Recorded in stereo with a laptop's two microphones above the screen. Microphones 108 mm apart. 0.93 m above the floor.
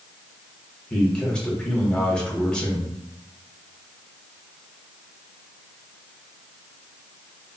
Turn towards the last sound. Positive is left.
turn(degrees=10)  # may be behind; listen again after turning